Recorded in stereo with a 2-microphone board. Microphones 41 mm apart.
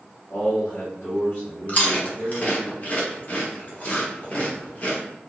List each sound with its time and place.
0.3 s a man speaking: 70° left (ahead or behind), 1.0 m; by 2.7 s 35° left (ahead or behind), 2 m
1.7 s chewing: 35° left (ahead or behind), 0.9 m